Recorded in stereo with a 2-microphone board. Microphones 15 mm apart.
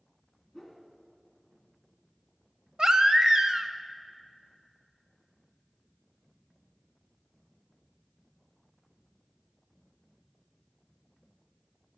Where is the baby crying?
55° right (ahead or behind), 0.6 m.